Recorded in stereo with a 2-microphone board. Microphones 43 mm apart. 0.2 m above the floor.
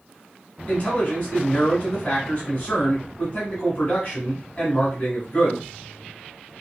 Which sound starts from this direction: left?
A man speaking, at 0.7 s.